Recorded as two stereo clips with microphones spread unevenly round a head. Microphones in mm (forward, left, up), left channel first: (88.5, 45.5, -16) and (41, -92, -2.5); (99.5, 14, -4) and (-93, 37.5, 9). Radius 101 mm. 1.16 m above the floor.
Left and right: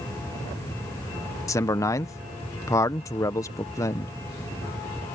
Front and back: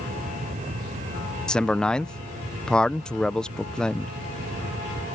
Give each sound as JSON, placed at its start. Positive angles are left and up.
{"t": 1.5, "sound": "a man speaking", "azimuth_deg": 65}